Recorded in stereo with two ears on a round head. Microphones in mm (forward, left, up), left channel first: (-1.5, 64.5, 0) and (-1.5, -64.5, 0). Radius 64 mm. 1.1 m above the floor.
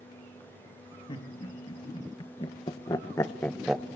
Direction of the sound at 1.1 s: 35° left (ahead or behind).